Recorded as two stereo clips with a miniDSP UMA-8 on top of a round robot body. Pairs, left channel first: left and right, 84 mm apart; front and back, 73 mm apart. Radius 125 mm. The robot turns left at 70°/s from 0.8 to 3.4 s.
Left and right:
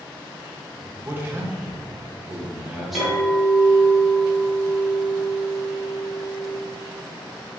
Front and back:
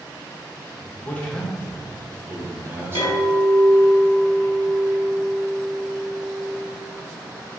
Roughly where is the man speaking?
Ahead right.